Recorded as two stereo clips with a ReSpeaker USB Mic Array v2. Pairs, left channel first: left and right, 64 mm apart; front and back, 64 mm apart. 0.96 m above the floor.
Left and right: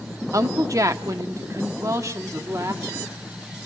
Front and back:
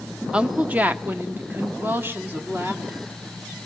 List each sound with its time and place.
0.3 s a woman speaking: 105° right, 0.7 m; by 3.1 s 125° right, 2.5 m